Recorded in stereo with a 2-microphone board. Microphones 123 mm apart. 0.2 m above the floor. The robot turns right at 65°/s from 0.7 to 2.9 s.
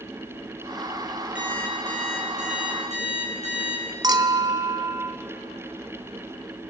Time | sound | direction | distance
1.4 | an alarm clock | 170° right | 6.5 m
4.0 | a clink | 35° right (ahead or behind) | 1.3 m